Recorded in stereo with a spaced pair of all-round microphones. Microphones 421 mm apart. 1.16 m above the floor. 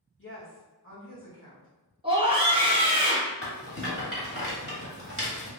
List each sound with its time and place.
0.2 s a woman speaking: 30° left (ahead or behind), 1.8 m
2.0 s a scream: 15° right (ahead or behind), 1.2 m
3.4 s a rattle: 30° left (ahead or behind), 1.2 m